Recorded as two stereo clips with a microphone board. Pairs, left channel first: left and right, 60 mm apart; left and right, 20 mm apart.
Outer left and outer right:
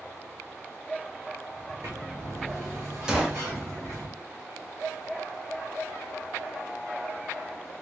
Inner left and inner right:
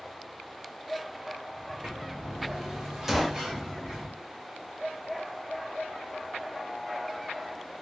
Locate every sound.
1.6 s a sliding door: 55° right (ahead or behind), 1.6 m
3.1 s a gunshot: 15° right (ahead or behind), 0.7 m